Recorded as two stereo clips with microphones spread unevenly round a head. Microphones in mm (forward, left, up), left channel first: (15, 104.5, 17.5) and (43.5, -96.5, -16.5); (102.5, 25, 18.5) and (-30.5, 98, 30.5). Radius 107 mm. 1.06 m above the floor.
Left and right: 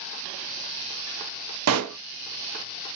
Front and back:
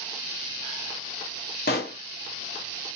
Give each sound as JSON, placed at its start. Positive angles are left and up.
{"t": 1.7, "sound": "a pop", "azimuth_deg": -75, "distance_m": 0.7}